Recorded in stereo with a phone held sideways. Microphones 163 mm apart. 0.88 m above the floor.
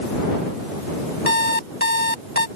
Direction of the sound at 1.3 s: 70° left (ahead or behind).